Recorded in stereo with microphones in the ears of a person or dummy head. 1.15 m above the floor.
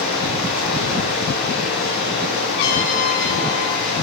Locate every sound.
0.0 s running water: 45° left (ahead or behind), 7 m
2.6 s a trumpet: 70° left (ahead or behind), 5 m